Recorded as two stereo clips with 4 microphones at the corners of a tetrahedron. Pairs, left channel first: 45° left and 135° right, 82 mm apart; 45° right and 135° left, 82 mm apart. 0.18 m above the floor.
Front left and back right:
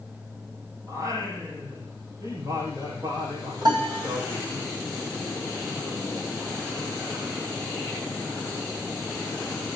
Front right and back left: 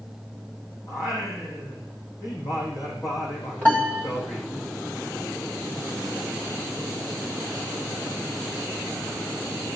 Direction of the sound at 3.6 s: 115° right.